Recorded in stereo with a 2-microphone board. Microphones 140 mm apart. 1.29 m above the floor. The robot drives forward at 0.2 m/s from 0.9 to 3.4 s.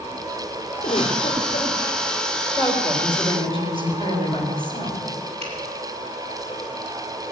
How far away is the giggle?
About 3.5 m.